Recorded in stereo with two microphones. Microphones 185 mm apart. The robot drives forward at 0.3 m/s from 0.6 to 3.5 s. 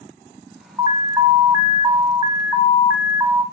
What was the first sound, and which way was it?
An alarm, 20° right (ahead or behind).